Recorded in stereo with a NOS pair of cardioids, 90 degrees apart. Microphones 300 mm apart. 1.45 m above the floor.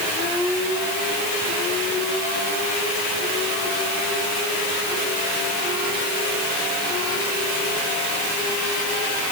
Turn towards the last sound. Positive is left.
No sound to turn to.